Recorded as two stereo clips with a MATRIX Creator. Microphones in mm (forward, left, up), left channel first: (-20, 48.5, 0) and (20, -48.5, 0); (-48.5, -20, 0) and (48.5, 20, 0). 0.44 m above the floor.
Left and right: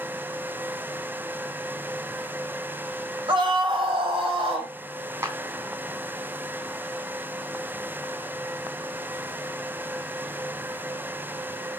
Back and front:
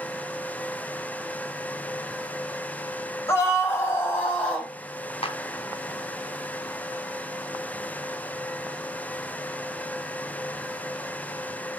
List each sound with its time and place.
3.3 s a scream: 100° right, 3 m; by 4.7 s 80° right, 3 m
5.2 s a clap: 130° right, 2.5 m